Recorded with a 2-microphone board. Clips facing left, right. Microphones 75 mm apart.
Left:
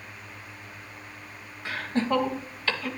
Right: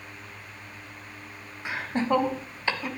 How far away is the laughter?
About 1.3 m.